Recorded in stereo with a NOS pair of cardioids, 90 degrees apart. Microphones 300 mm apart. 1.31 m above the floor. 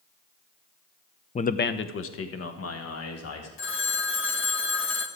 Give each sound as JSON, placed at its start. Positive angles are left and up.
{"t": 1.4, "sound": "a man speaking", "azimuth_deg": 20, "distance_m": 0.6}
{"t": 3.6, "sound": "a phone ringing", "azimuth_deg": 40, "distance_m": 1.4}